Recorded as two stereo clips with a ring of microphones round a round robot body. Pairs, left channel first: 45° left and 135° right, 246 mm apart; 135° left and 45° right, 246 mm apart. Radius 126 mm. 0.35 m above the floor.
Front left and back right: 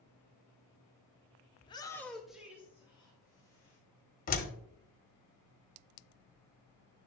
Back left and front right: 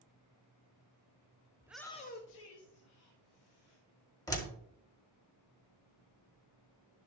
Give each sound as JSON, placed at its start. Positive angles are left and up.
{"t": 1.6, "sound": "a shout", "azimuth_deg": 5, "distance_m": 0.8}
{"t": 4.3, "sound": "a door slam", "azimuth_deg": 70, "distance_m": 1.1}